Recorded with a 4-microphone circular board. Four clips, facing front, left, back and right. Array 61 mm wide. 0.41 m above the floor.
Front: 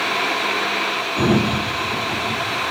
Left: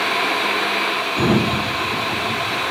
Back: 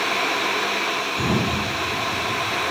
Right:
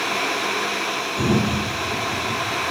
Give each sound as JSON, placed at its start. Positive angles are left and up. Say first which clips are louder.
{"t": 1.2, "sound": "a sliding door", "louder": "left 2 dB, front 7 dB", "azimuth_deg": 60, "distance_m": 8.5}